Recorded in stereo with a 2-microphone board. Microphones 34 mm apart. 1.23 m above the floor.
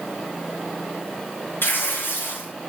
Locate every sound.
1.6 s tearing paper: 80° left, 4.5 m